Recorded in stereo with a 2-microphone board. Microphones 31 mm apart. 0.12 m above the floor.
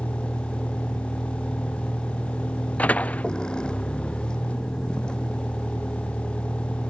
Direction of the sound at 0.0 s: 35° left (ahead or behind).